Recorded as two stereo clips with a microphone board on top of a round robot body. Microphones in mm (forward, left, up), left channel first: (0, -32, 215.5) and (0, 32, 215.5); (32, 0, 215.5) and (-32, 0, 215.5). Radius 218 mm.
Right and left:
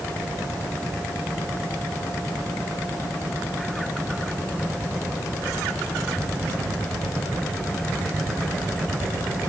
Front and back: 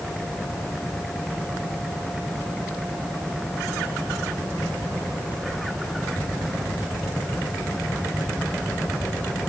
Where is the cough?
No cough in this recording.